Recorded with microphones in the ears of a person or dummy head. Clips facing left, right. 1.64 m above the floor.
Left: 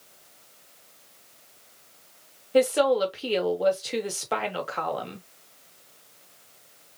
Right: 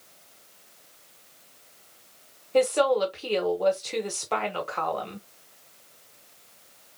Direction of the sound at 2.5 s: 10° left (ahead or behind).